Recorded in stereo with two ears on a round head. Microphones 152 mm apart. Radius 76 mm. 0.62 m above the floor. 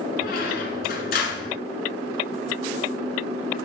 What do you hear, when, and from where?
0.2 s a squeak: 60° left (ahead or behind), 1.6 m